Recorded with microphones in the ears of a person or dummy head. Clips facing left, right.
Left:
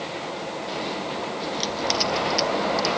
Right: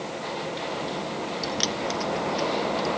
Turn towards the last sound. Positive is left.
turn(degrees=70)  # may be behind; listen again after turning